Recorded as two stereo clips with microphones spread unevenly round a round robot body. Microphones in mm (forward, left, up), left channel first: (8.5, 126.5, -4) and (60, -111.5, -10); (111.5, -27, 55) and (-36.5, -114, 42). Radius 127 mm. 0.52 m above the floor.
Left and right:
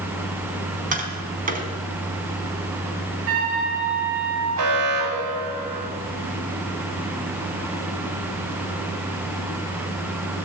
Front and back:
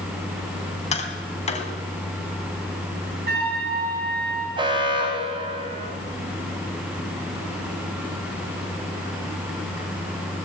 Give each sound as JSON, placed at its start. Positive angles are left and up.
{"t": 0.9, "sound": "tapping", "azimuth_deg": -20, "distance_m": 4.0}
{"t": 3.3, "sound": "a trumpet", "azimuth_deg": -125, "distance_m": 8.0}
{"t": 4.6, "sound": "an alarm", "azimuth_deg": -90, "distance_m": 5.5}